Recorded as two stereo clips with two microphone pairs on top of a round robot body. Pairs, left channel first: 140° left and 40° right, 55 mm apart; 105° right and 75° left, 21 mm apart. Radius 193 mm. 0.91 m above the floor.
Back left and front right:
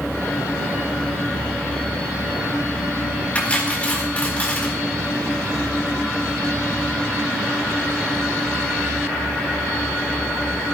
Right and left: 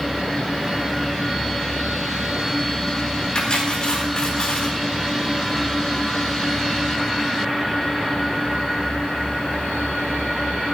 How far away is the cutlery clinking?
About 4 m.